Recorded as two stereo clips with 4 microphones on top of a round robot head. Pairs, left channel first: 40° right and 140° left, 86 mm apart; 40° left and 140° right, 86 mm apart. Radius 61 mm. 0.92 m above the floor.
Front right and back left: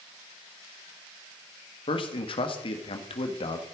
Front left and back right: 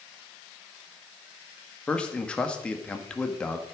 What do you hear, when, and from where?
1.9 s a man speaking: 35° right, 1.6 m